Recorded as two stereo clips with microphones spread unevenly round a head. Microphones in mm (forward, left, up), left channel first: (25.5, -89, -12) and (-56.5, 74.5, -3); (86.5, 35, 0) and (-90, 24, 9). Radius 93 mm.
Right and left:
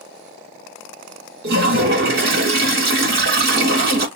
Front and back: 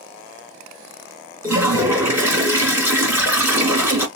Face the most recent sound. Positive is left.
turn(degrees=110)